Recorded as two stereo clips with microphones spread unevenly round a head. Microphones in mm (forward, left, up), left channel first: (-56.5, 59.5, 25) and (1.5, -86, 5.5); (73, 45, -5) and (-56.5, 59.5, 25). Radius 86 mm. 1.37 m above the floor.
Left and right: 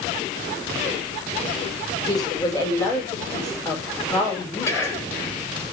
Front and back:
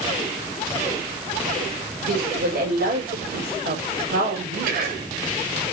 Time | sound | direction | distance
2.0 | a woman speaking | straight behind | 5.5 m
4.7 | whispering | 175° right | 5.5 m